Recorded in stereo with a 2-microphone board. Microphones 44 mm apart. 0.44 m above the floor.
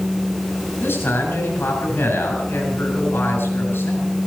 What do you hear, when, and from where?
0.8 s a man speaking: 65° left (ahead or behind), 6.5 m